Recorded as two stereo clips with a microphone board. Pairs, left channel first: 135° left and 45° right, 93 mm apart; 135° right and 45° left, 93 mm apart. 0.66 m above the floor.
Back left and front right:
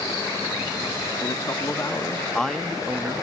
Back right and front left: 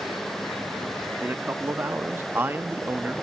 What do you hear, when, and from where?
1.2 s a man speaking: 110° left, 1.0 m; by 3.2 s 15° right, 0.8 m